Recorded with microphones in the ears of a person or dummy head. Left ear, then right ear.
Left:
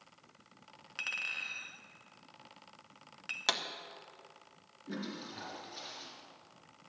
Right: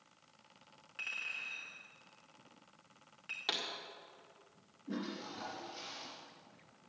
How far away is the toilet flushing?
About 4 m.